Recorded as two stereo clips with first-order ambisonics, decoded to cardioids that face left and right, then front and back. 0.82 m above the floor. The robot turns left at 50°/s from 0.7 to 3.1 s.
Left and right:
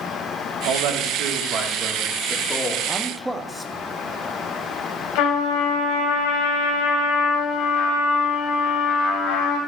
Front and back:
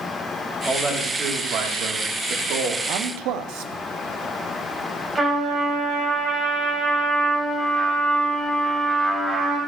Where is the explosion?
No explosion in this recording.